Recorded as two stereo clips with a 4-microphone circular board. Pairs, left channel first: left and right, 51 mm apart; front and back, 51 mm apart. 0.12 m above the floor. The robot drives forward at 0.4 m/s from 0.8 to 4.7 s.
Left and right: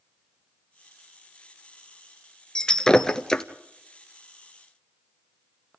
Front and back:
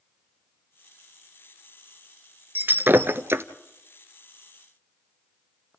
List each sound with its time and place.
2.5 s breaking glass: 155° left, 0.8 m; by 3.4 s 165° left, 1.1 m